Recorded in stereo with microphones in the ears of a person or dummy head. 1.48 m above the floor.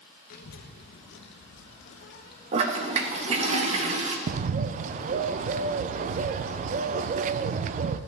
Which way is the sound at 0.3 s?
60° left (ahead or behind).